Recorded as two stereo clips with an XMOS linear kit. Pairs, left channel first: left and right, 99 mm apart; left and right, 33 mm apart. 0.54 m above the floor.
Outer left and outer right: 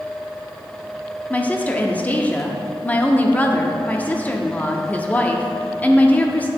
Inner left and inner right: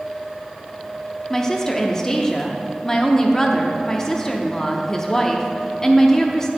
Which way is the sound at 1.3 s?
15° left (ahead or behind).